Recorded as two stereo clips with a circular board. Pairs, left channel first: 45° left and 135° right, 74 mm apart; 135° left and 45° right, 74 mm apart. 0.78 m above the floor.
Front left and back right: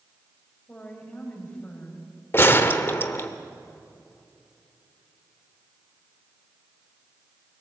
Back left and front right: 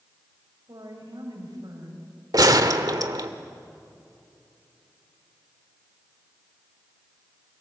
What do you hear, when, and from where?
0.7 s a woman speaking: 25° right, 5 m
2.3 s a gunshot: 15° right, 1.1 m